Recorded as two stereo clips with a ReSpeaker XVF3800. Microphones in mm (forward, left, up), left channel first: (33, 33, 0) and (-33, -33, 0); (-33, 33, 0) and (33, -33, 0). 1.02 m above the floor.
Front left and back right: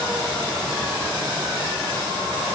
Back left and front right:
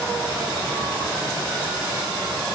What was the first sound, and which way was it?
Only background noise.